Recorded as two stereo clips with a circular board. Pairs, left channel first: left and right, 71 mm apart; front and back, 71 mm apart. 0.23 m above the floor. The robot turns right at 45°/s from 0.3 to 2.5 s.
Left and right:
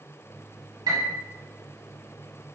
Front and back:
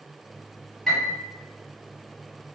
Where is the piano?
85° right, 1.4 m; by 1.2 s 70° right, 1.4 m.